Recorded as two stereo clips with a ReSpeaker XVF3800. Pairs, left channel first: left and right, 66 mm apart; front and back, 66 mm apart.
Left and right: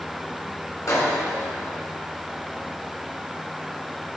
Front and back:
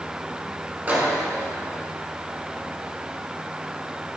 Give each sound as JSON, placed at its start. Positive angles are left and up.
{"t": 0.9, "sound": "a microwave", "azimuth_deg": 120, "distance_m": 2.5}